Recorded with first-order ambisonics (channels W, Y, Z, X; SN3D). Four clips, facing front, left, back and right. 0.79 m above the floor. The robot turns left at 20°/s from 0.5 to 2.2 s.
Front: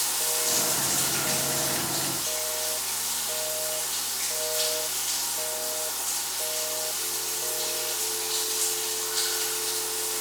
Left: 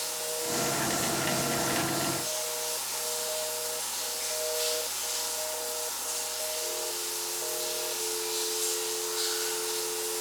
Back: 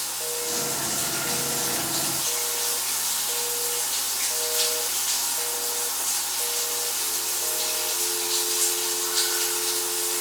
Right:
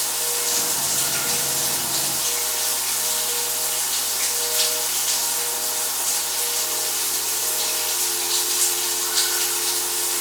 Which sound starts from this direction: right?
Running water, at 0.0 s.